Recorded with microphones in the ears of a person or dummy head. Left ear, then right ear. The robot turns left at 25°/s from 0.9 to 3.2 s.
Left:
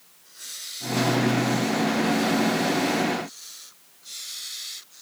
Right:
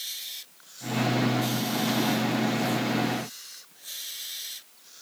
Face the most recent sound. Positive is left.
No sound to turn to.